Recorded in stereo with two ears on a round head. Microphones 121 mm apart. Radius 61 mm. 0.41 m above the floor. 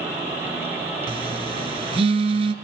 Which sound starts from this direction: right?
A phone buzzing, at 1.1 s.